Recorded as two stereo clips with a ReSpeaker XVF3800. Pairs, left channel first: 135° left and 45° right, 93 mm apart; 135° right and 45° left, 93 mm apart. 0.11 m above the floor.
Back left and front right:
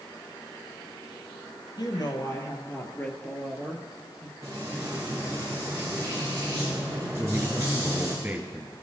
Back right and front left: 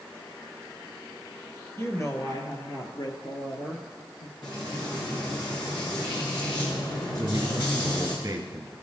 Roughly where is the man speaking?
Ahead.